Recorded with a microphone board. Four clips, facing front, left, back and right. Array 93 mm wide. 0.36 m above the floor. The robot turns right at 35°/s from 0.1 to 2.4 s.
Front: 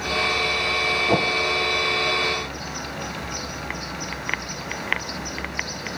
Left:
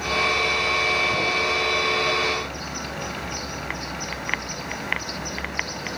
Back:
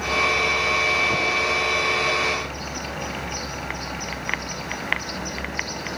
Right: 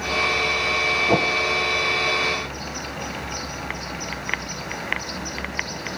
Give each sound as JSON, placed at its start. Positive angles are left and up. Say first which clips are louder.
{"t": 1.1, "sound": "a whoosh", "louder": "right 5 dB, front 4 dB", "azimuth_deg": -55, "distance_m": 1.9}